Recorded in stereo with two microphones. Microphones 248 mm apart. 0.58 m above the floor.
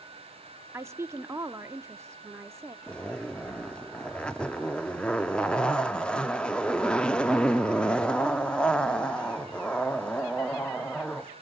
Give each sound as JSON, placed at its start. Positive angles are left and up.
{"t": 0.7, "sound": "a woman speaking", "side_deg": -10, "distance_m": 0.8}
{"t": 2.9, "sound": "a zipper", "side_deg": 5, "distance_m": 0.6}